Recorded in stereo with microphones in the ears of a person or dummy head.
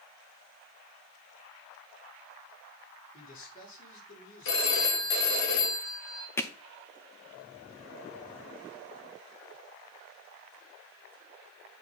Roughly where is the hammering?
Centre.